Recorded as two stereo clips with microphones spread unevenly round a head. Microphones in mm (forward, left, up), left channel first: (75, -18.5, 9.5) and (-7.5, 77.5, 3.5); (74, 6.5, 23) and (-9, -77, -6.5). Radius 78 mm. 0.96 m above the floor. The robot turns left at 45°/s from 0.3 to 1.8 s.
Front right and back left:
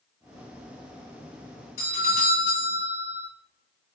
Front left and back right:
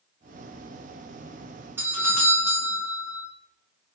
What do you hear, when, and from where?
1.8 s a doorbell: 75° right, 2 m; by 3.3 s 80° right, 2 m